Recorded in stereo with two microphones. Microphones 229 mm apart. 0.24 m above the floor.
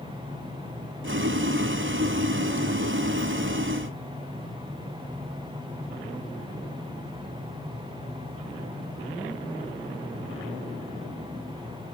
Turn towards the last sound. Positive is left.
turn(degrees=-60)  # may be behind; listen again after turning